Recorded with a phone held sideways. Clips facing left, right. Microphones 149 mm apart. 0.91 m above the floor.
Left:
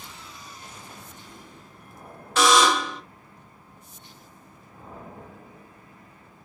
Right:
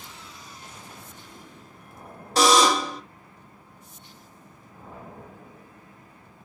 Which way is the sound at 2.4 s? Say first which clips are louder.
Right 1 dB; 35° right (ahead or behind).